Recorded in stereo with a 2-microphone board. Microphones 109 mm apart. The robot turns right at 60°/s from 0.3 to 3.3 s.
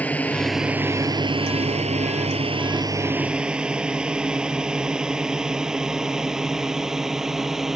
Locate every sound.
0.0 s a drone: 15° left (ahead or behind); by 7.8 s 5° right (ahead or behind)